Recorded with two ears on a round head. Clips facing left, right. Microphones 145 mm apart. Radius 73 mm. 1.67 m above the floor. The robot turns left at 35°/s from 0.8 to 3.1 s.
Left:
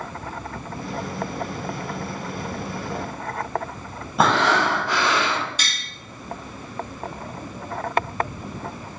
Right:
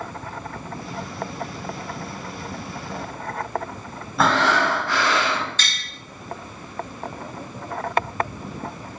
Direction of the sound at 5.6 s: 10° left (ahead or behind).